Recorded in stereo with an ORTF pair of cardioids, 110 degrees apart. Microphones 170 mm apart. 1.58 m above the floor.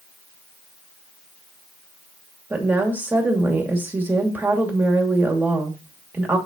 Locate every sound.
2.5 s a woman speaking: 10° right, 2.5 m